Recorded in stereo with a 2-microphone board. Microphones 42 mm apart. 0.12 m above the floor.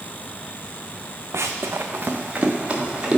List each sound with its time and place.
1.3 s running footsteps: 75° right (ahead or behind), 0.6 m; by 3.2 s 20° right (ahead or behind), 1.8 m